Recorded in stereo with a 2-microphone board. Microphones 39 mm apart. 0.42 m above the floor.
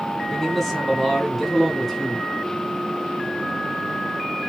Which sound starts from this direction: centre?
A man speaking, at 0.3 s.